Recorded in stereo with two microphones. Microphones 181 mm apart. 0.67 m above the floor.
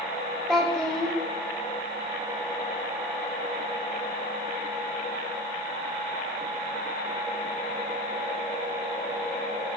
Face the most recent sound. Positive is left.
turn(degrees=5)  # may be behind; listen again after turning